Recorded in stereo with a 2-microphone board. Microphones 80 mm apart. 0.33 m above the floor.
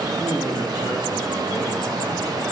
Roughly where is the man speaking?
Left.